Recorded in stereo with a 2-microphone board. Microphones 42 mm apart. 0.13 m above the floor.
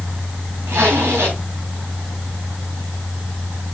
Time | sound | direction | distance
0.7 | a zipper | 75° right (ahead or behind) | 6 m